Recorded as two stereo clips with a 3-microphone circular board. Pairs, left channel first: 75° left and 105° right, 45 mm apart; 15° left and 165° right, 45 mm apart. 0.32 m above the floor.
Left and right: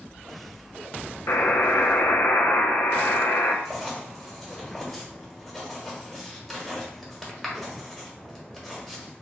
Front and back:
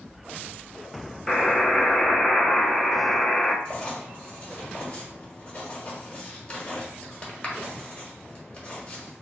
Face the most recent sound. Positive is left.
turn(degrees=-20)